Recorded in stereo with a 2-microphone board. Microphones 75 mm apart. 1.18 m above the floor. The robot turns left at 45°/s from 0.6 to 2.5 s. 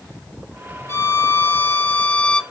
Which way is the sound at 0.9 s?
90° left.